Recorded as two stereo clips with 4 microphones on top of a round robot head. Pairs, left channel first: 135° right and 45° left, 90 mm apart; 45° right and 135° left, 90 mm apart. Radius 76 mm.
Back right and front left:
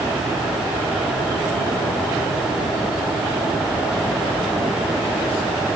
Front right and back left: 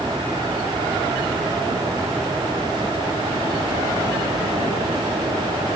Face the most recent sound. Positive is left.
No sound to turn to.